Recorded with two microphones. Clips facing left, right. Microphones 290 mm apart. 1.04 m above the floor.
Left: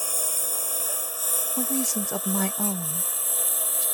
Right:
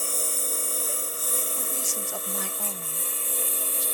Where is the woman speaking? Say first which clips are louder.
Left 10 dB; 65° left (ahead or behind).